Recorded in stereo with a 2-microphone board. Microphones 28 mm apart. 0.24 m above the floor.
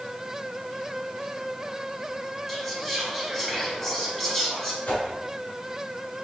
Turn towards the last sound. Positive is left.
turn(degrees=65)  # may be behind; listen again after turning